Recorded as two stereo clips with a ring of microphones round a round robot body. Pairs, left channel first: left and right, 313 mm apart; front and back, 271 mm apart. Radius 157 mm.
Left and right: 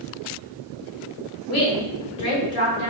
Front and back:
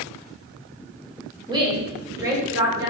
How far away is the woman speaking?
About 1.3 m.